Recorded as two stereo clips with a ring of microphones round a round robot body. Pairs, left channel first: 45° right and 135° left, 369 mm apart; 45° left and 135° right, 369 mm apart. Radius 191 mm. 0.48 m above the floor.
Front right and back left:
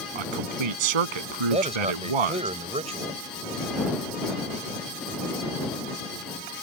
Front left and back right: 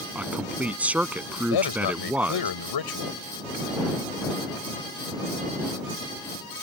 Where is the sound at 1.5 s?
60° left.